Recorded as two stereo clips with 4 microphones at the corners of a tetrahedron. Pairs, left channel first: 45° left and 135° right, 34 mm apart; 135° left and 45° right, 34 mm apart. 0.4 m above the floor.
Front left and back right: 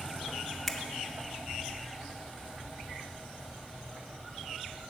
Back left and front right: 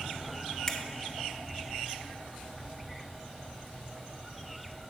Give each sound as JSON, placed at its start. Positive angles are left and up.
{"t": 0.7, "sound": "a finger snap", "azimuth_deg": 120, "distance_m": 0.5}